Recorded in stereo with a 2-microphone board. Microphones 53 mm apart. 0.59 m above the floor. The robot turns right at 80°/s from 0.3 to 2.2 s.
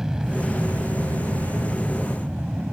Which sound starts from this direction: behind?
An aircraft, at 0.0 s.